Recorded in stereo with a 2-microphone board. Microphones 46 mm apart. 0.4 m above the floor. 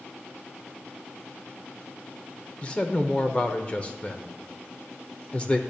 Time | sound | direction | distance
2.6 | a man speaking | 25° left (ahead or behind) | 0.8 m